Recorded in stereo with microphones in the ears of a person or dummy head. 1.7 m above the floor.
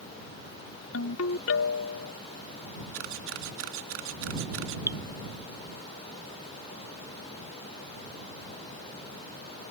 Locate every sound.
0.9 s a ringtone: 80° left
2.9 s a camera shutter: 70° right (ahead or behind)
4.9 s dripping: 15° right (ahead or behind)